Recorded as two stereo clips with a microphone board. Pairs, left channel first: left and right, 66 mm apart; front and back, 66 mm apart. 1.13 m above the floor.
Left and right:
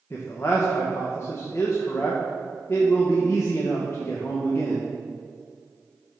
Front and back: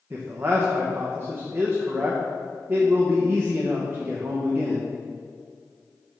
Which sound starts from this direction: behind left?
A man speaking, at 0.1 s.